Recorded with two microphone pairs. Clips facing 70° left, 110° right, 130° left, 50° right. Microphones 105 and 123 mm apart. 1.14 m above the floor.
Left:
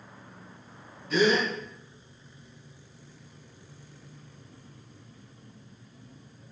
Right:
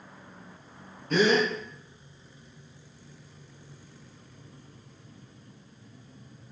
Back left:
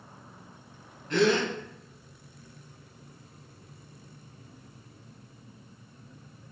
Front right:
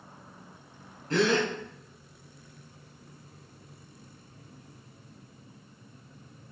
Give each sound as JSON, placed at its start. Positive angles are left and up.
{"t": 1.1, "sound": "a gasp", "azimuth_deg": -90, "distance_m": 1.6}